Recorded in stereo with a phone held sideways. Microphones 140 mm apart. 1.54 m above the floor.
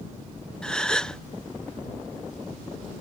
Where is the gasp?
5° left (ahead or behind).